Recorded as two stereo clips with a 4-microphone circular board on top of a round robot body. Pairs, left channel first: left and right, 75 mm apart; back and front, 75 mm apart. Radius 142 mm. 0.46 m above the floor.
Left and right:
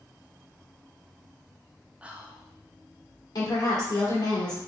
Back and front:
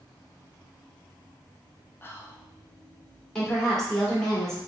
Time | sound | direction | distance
2.0 | whispering | 150° right | 0.9 m
3.4 | a woman speaking | 95° left | 1.8 m